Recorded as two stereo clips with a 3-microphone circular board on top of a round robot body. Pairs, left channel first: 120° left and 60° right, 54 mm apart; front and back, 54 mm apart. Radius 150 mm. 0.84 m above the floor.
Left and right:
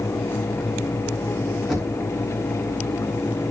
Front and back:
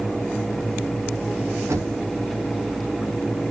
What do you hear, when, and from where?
1.7 s knocking: 150° right, 4.5 m